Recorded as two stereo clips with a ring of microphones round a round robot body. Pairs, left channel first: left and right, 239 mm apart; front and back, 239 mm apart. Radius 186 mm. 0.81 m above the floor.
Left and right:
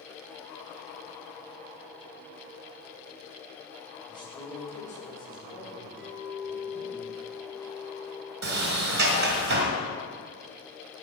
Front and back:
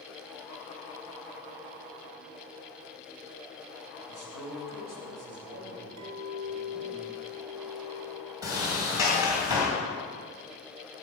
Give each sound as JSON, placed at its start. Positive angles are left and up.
{"t": 4.1, "sound": "a man speaking", "azimuth_deg": 165, "distance_m": 4.0}
{"t": 6.0, "sound": "a clink", "azimuth_deg": 180, "distance_m": 2.5}
{"t": 8.4, "sound": "a sliding door", "azimuth_deg": -100, "distance_m": 2.0}